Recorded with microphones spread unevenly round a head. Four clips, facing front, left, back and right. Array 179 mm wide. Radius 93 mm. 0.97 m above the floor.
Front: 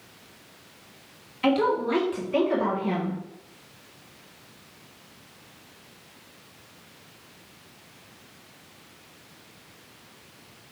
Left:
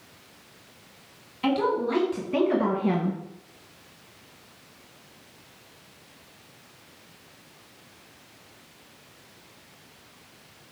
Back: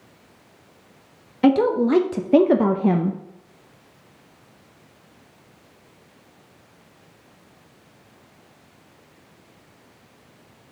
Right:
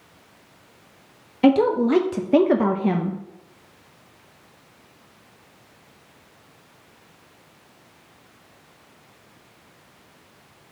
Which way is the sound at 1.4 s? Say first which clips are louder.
Right 8 dB, back 6 dB; 125° right.